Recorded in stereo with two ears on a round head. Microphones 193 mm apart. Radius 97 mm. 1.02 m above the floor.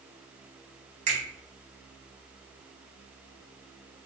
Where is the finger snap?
35° right (ahead or behind), 1.3 m.